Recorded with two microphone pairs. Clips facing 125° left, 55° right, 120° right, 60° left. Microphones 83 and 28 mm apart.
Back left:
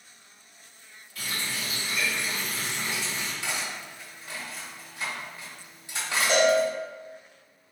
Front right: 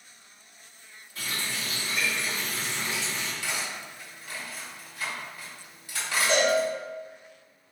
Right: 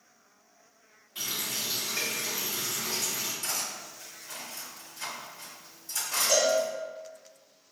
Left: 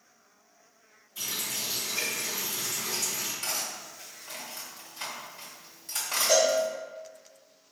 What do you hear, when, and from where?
1.1 s a running tap: 110° right, 1.8 m
3.4 s cutlery clinking: 60° left, 1.7 m
6.3 s a cowbell: 50° left, 1.5 m